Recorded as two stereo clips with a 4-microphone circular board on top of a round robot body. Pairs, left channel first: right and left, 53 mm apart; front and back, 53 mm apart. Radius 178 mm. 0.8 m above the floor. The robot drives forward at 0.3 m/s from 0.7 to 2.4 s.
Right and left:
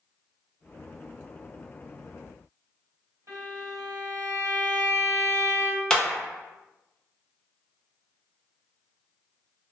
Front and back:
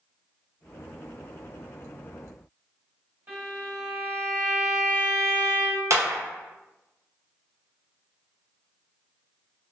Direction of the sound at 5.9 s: 165° right.